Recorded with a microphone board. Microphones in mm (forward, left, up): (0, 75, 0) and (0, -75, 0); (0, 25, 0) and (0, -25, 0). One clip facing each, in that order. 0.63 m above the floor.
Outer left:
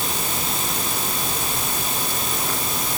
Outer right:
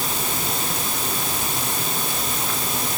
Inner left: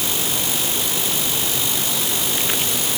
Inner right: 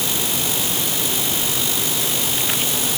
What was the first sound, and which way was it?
Only background noise.